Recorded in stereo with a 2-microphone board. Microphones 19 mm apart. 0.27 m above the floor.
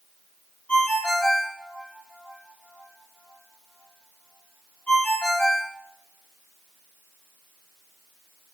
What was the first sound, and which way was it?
A ringtone, 75° left (ahead or behind).